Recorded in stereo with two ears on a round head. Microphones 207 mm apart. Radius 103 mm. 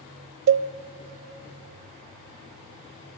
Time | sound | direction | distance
0.5 | a cowbell | 55° right (ahead or behind) | 0.6 m